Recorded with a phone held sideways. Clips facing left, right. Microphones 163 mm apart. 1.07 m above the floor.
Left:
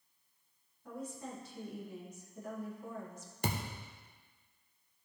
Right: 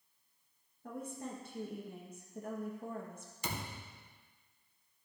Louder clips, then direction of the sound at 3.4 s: Left 5 dB; 60° left (ahead or behind).